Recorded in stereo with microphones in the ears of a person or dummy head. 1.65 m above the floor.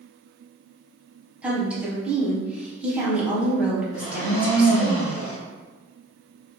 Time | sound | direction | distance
1.4 | a woman speaking | 10° right (ahead or behind) | 0.9 m
3.9 | a blender | 80° left | 1.0 m